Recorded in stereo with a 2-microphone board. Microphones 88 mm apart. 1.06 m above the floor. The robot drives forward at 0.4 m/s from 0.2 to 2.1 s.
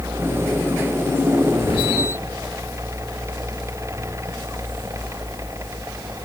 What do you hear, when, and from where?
1.6 s whispering: 65° left (ahead or behind), 0.5 m; by 2.0 s 75° left (ahead or behind), 0.5 m